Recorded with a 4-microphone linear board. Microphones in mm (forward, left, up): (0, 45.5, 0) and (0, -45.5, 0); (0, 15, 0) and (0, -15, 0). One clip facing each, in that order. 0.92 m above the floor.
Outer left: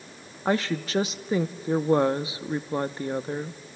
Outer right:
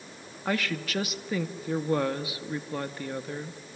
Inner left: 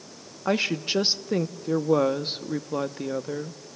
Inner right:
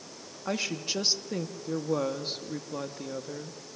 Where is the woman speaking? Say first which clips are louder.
Outer left 4 dB, inner left 7 dB; 25° left (ahead or behind), 1.1 m.